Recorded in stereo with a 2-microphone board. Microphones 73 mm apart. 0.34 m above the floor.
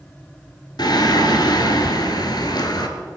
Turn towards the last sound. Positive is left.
turn(degrees=90)